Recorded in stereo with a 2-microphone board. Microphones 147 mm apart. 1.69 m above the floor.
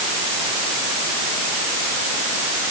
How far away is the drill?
No drill in this recording.